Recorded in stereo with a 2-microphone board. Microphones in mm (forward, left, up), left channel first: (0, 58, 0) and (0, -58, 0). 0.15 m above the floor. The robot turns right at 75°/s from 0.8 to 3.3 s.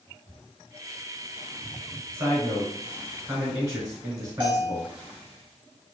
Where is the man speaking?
145° right, 1.2 m; by 4.9 s 60° right, 1.2 m.